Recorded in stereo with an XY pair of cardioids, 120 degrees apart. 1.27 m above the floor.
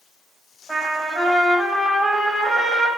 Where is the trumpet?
5° left, 1.2 m.